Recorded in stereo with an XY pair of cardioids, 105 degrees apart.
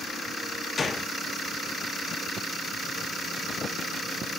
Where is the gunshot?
25° left, 0.7 m.